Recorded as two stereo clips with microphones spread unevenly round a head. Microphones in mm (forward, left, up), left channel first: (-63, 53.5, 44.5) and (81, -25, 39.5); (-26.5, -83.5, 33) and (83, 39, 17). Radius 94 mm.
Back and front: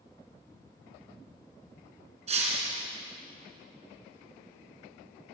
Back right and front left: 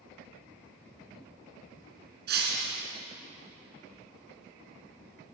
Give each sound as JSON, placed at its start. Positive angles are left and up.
{"t": 2.3, "sound": "breaking glass", "azimuth_deg": 25, "distance_m": 4.5}